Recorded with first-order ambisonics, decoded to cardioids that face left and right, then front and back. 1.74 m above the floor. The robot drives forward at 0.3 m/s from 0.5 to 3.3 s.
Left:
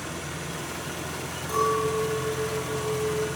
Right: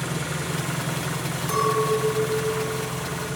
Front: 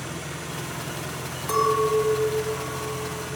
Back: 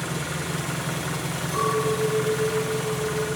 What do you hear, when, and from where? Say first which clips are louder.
0.0 s an engine running: right 5 dB, back 4 dB; 125° right, 1.5 m; by 3.4 s 145° right, 2 m
1.5 s a clink: right 2 dB, front 4 dB; 50° right, 6.5 m; by 3.3 s 55° right, 6.5 m